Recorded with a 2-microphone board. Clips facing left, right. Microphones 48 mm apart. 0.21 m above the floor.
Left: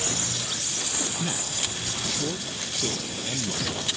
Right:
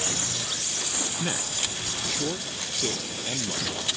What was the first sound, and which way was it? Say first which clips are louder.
A man speaking: even; 20° right (ahead or behind).